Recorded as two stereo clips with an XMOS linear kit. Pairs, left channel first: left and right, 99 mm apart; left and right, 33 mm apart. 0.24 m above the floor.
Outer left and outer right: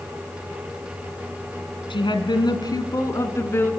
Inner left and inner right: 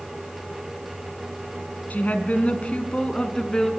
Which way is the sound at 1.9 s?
55° left (ahead or behind).